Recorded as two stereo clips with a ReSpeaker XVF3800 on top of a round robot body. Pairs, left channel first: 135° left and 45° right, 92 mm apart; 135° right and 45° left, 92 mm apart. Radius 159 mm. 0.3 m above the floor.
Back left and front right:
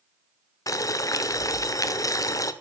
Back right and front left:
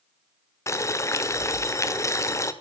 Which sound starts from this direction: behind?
Boiling, at 0.7 s.